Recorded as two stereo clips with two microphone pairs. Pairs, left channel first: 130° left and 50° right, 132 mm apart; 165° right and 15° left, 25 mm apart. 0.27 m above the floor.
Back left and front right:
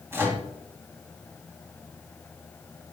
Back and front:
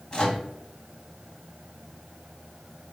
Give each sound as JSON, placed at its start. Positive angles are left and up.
{"t": 0.1, "sound": "a microwave", "azimuth_deg": -120, "distance_m": 1.9}